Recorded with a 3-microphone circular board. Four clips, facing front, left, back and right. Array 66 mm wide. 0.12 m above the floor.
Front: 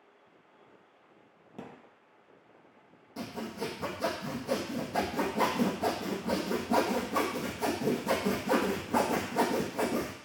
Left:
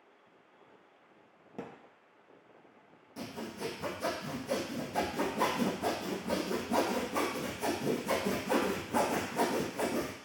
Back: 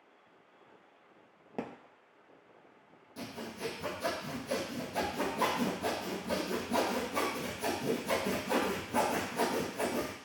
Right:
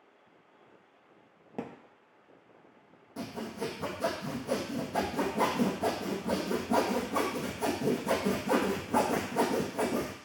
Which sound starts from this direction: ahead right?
Sawing, at 3.2 s.